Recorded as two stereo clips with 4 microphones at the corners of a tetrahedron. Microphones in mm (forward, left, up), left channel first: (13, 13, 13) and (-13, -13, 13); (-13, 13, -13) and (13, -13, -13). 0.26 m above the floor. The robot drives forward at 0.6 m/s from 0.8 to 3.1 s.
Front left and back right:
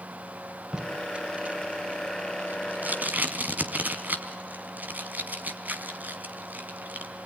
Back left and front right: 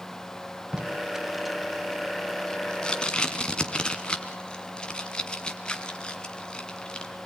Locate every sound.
0.7 s tape being pulled: 95° right, 0.8 m; by 7.1 s 165° right, 1.6 m